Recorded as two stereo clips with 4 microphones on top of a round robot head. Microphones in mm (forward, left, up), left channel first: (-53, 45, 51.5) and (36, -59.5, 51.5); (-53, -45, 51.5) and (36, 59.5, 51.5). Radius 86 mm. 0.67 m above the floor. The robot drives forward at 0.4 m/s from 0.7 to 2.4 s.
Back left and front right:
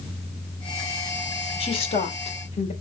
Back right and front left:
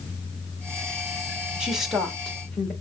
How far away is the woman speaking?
About 1.0 m.